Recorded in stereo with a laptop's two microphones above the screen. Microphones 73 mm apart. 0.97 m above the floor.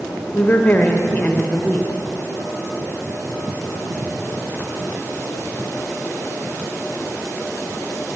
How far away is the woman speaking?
About 0.8 m.